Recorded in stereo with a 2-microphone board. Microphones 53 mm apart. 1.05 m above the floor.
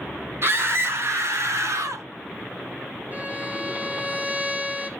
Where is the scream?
45° right (ahead or behind), 2.5 m; by 2.0 s 70° right (ahead or behind), 2.5 m.